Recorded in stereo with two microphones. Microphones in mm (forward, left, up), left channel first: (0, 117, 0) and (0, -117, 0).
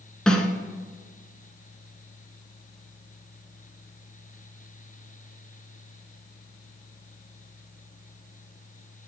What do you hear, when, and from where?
0.3 s a snare drum: 5° left (ahead or behind), 0.8 m